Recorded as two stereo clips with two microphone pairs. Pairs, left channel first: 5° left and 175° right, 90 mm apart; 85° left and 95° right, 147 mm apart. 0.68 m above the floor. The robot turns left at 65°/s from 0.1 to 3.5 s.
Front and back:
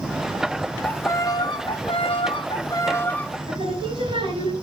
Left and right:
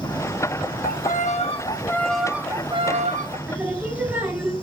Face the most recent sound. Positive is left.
turn(degrees=-175)